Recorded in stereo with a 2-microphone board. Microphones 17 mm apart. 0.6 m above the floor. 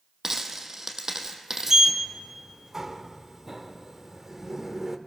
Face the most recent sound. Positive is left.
turn(degrees=-25)  # may be behind; listen again after turning